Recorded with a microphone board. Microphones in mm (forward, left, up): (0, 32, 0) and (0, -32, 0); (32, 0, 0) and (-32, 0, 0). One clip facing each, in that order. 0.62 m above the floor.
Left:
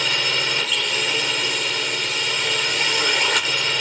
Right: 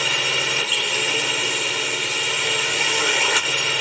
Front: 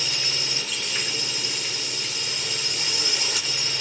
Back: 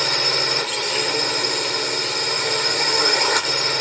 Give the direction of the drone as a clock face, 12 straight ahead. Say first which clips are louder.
Even, back 9 dB; 6 o'clock.